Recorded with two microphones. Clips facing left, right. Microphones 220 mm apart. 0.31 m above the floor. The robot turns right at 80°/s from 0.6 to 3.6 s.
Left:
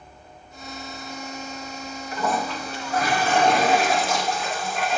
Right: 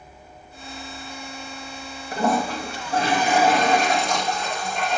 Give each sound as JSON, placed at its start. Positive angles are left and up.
{"t": 2.1, "sound": "a toilet flushing", "azimuth_deg": -115, "distance_m": 1.8}